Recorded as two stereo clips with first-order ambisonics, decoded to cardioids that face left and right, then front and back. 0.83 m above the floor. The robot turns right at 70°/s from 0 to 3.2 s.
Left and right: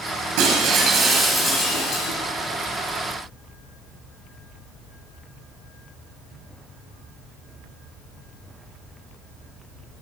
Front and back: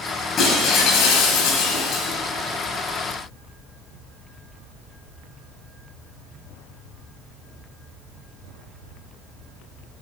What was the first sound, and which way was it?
Breaking glass, 65° right.